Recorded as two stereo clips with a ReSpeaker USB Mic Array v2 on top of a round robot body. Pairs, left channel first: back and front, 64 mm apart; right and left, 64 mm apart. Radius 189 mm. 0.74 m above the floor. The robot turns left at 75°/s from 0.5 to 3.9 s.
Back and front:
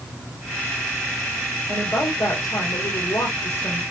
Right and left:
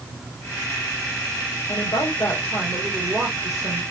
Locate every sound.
1.7 s a woman speaking: 95° right, 4.5 m; by 3.8 s 105° left, 4.5 m